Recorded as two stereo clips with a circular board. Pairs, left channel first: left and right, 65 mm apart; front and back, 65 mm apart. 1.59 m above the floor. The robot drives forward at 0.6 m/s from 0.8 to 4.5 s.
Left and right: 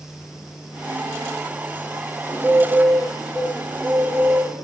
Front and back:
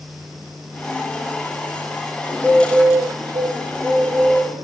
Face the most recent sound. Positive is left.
turn(degrees=-140)